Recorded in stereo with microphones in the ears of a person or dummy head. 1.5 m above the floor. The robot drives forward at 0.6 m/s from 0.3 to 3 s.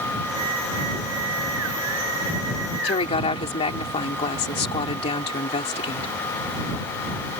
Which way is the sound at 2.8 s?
30° left (ahead or behind).